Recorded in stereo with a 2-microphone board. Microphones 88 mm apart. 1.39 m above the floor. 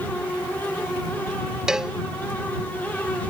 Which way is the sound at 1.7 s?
5° right (ahead or behind).